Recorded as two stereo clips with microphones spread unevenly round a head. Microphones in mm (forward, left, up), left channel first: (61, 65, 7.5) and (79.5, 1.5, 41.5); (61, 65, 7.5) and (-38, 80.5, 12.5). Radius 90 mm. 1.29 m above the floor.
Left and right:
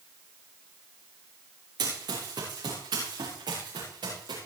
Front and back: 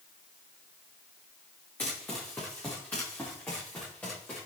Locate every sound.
1.8 s running footsteps: 90° right, 5.5 m